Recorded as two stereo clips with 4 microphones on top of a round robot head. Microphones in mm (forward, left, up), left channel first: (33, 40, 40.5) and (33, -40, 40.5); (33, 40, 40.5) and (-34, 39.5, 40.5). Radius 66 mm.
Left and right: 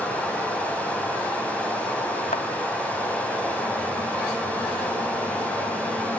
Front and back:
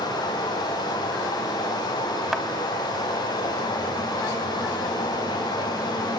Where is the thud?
100° left, 1.7 m.